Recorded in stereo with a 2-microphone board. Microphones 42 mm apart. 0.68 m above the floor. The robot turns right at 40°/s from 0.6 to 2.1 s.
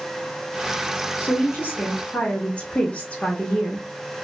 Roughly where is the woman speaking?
Left.